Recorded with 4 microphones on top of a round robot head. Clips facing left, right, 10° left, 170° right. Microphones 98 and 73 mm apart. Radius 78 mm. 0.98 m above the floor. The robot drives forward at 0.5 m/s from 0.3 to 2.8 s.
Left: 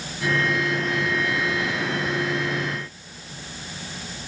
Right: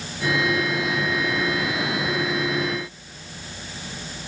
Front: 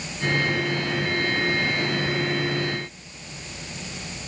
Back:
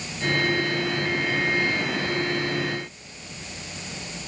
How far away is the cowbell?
I don't hear a cowbell.